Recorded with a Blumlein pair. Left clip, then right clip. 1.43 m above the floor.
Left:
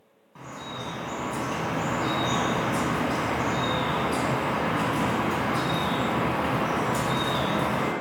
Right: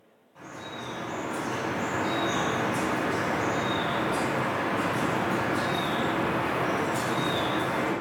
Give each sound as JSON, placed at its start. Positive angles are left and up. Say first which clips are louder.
{"t": 0.3, "sound": "dripping", "louder": "left 2 dB", "azimuth_deg": 60, "distance_m": 1.0}